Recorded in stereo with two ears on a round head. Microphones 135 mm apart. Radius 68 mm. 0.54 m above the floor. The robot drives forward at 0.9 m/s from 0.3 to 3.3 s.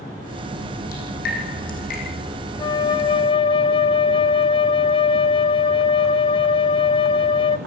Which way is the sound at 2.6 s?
25° left (ahead or behind).